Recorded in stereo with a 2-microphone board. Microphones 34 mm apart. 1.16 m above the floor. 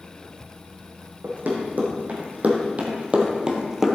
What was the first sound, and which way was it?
Running footsteps, 55° right (ahead or behind).